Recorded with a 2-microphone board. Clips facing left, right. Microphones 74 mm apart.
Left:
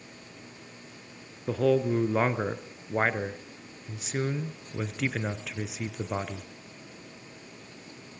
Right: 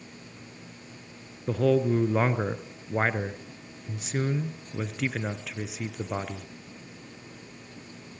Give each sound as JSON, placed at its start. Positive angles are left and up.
{"t": 1.5, "sound": "a man speaking", "side_deg": 0, "distance_m": 1.4}